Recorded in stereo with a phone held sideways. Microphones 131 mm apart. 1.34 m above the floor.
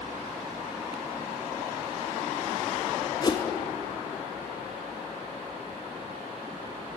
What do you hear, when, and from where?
3.2 s a whoosh: 30° left (ahead or behind), 0.8 m